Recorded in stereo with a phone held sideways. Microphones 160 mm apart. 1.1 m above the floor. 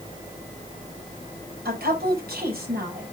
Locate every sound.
1.6 s a woman speaking: 80° right, 6 m